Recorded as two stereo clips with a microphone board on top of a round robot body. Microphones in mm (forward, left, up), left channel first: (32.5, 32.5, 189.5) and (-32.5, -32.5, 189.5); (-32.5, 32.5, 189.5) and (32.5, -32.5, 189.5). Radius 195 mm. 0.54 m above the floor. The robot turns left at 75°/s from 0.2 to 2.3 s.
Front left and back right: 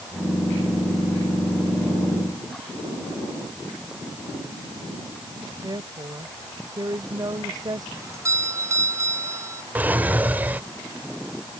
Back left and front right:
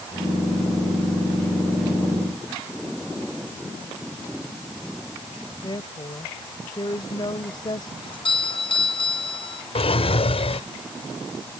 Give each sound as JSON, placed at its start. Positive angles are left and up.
{"t": 5.6, "sound": "a woman speaking", "azimuth_deg": 175}
{"t": 8.0, "sound": "a doorbell", "azimuth_deg": 165}
{"t": 9.8, "sound": "a drawer", "azimuth_deg": 150}